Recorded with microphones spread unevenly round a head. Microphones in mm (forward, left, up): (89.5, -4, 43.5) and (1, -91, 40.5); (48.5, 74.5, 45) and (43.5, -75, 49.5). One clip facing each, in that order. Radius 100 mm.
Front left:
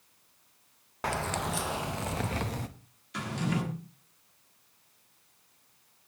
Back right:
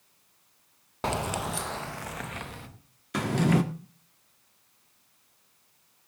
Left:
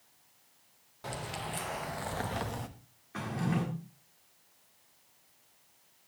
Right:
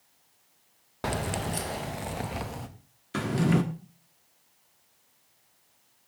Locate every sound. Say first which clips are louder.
1.0 s keys jangling: back right 2 dB, right 9 dB; 70° right, 0.8 m; by 2.7 s straight ahead, 1.2 m
3.1 s a drawer: back right 8 dB, right 8 dB; 115° right, 1.1 m